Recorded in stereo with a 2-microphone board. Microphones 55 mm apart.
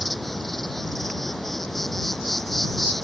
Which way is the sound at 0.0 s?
5° left (ahead or behind).